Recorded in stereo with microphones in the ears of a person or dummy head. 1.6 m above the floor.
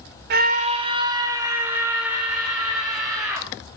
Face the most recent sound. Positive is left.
turn(degrees=0)  # may be behind; listen again after turning